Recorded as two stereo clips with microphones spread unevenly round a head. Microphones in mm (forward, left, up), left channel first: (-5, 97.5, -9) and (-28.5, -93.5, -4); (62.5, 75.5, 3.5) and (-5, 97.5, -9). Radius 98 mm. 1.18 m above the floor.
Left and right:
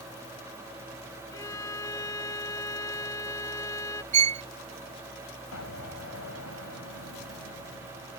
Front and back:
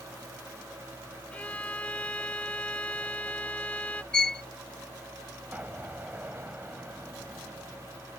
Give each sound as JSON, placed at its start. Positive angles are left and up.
{"t": 1.3, "sound": "a violin", "azimuth_deg": 15}
{"t": 4.1, "sound": "a violin", "azimuth_deg": -80}
{"t": 5.5, "sound": "an explosion", "azimuth_deg": 90}